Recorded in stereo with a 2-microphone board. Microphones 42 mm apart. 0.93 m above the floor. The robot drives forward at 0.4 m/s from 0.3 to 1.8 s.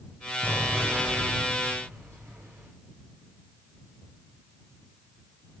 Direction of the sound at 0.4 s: 80° right.